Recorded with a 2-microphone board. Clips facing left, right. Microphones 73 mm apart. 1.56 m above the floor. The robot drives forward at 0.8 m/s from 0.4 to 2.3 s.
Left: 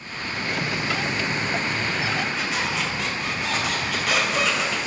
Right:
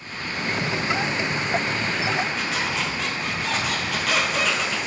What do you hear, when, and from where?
2.4 s a squeak: centre (ahead or behind), 0.5 m